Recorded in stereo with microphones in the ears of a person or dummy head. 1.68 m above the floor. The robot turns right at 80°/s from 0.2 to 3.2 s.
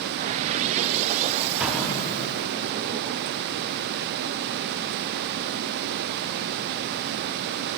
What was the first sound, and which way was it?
An explosion, 10° right (ahead or behind).